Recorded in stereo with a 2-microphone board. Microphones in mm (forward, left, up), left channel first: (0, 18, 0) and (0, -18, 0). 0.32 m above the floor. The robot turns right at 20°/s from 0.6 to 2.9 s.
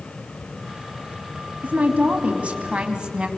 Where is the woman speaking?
45° right (ahead or behind), 2.5 m; by 3.3 s 25° right (ahead or behind), 2.5 m.